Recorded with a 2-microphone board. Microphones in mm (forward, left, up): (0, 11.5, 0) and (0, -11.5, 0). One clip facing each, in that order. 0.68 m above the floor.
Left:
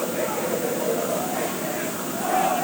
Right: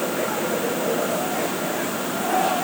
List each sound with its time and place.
Only background noise.